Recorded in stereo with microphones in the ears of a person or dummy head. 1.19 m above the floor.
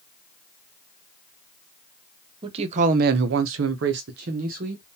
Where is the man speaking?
35° right (ahead or behind), 0.7 m; by 4.8 s 45° right (ahead or behind), 1.0 m.